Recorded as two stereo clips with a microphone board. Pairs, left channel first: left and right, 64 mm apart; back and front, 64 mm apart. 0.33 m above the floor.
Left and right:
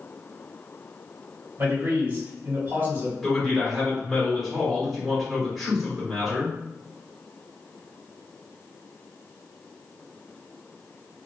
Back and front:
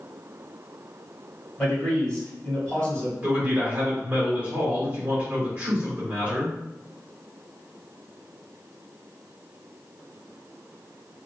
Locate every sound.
1.6 s a man speaking: 115° right, 1.9 m
3.2 s a man speaking: straight ahead, 1.4 m